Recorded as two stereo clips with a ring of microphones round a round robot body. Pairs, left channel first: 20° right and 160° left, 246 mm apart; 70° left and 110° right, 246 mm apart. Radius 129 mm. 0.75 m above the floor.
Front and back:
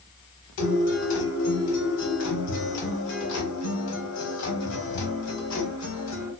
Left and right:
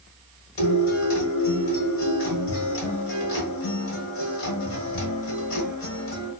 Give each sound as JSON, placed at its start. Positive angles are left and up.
{"t": 0.6, "sound": "a guitar", "azimuth_deg": 20, "distance_m": 1.2}